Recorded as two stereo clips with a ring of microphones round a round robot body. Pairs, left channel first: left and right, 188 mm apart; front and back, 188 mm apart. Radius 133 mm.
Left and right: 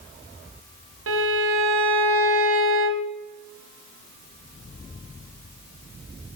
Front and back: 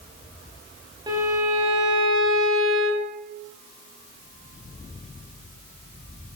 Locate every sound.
1.1 s a violin: 105° right, 1.6 m